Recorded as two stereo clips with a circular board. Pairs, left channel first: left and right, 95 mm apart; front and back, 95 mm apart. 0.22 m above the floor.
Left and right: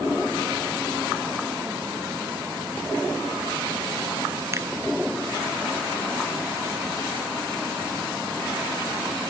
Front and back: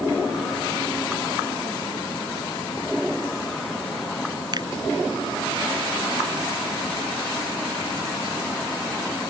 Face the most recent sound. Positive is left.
turn(degrees=-145)